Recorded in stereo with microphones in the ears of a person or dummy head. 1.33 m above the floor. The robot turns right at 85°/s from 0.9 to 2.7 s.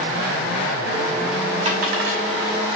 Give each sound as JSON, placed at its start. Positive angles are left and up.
{"t": 1.6, "sound": "a dropped coin", "side_deg": -35, "distance_m": 1.9}